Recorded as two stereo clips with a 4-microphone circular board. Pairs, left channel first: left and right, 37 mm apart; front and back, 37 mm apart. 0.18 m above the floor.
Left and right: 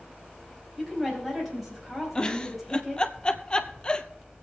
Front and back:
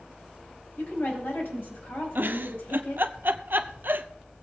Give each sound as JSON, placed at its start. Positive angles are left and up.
{"t": 0.8, "sound": "a woman speaking", "azimuth_deg": 0, "distance_m": 5.0}
{"t": 2.1, "sound": "a giggle", "azimuth_deg": 155, "distance_m": 0.7}